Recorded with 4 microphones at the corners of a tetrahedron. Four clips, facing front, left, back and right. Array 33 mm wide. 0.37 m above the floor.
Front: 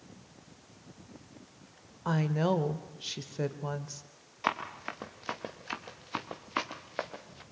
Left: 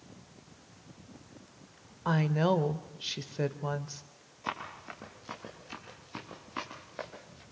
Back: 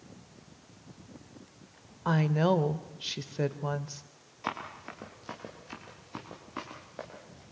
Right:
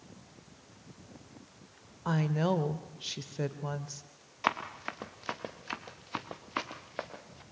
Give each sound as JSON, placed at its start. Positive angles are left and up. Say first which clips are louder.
{"t": 2.0, "sound": "a woman speaking", "louder": "left 2 dB, back 3 dB", "azimuth_deg": 135, "distance_m": 1.0}
{"t": 4.4, "sound": "running footsteps", "louder": "right 6 dB, front 4 dB", "azimuth_deg": -65, "distance_m": 3.5}